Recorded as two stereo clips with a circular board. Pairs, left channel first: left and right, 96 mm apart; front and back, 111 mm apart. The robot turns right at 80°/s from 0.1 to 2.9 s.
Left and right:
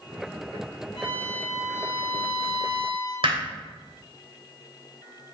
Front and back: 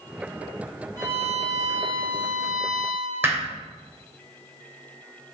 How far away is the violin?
About 5 m.